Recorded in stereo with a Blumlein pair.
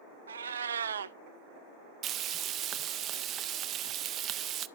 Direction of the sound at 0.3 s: 70° right.